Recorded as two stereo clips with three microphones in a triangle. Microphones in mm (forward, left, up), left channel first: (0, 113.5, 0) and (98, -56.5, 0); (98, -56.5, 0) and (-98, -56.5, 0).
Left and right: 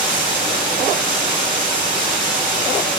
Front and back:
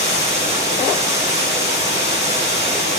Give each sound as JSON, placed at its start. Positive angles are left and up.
{"t": 0.0, "sound": "running water", "azimuth_deg": -105, "distance_m": 7.5}